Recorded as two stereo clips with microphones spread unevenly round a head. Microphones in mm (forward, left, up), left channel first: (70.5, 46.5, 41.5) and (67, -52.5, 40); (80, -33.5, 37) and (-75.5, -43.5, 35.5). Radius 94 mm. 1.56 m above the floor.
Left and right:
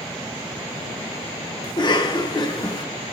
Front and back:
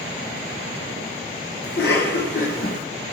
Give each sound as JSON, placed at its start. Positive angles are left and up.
{"t": 1.6, "sound": "a cough", "azimuth_deg": 40, "distance_m": 1.1}